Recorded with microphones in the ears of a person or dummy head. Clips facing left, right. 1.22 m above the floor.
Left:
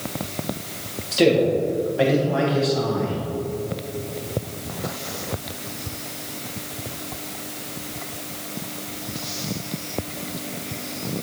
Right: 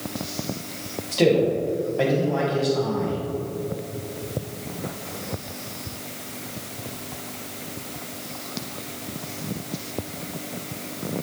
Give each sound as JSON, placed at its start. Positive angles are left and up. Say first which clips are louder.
{"t": 1.1, "sound": "a man speaking", "louder": "left 2 dB", "side_deg": 0, "distance_m": 1.9}